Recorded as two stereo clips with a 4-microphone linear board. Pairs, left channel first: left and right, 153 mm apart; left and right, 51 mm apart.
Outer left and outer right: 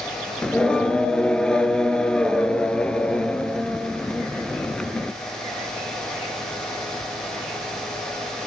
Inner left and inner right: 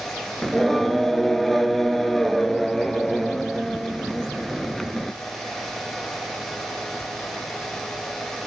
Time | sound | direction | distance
0.4 | singing | 5° left (ahead or behind) | 0.6 m